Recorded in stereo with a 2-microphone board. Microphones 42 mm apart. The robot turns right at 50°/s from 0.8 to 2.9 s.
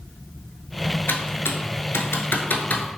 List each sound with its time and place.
1.1 s typing on a keyboard: 60° left (ahead or behind), 0.5 m; by 2.8 s 35° left (ahead or behind), 0.5 m